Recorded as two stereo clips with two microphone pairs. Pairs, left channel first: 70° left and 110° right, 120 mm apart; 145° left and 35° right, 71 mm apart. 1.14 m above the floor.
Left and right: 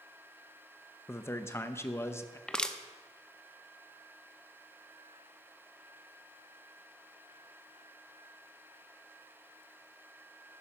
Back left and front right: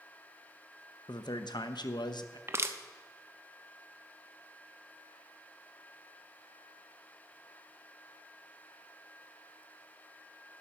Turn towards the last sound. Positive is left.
turn(degrees=-5)